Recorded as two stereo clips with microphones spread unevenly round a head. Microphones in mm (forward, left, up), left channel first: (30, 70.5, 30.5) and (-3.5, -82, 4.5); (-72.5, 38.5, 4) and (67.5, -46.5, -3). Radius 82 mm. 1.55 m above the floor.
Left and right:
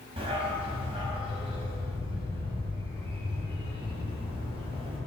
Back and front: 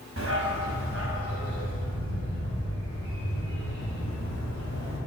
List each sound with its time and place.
0.2 s a dog barking: 40° right, 4 m